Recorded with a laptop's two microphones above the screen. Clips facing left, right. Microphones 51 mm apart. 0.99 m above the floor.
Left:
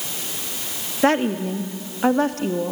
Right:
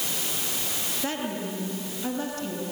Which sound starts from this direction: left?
A woman speaking, at 1.0 s.